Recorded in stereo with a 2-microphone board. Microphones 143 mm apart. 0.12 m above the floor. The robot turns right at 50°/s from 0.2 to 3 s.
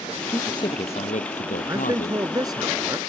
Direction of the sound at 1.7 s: 20° right (ahead or behind).